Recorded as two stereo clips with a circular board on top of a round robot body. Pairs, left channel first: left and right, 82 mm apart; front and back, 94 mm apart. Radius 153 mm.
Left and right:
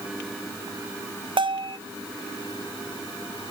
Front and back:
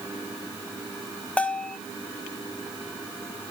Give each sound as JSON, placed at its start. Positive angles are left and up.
{"t": 1.4, "sound": "a bell", "azimuth_deg": -75, "distance_m": 0.9}